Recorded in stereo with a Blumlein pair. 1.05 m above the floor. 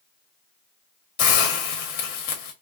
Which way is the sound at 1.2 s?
50° left.